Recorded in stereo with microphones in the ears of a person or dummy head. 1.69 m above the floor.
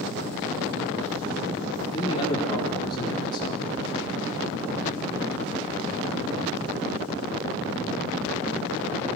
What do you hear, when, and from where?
1.9 s a man speaking: 30° left (ahead or behind), 4.5 m